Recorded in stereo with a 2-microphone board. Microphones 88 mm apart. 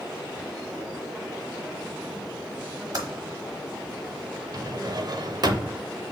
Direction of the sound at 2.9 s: 50° right (ahead or behind).